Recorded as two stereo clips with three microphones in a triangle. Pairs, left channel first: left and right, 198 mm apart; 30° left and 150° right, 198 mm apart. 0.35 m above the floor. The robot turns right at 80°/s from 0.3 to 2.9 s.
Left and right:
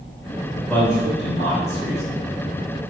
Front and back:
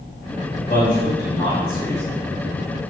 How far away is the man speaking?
About 1.7 m.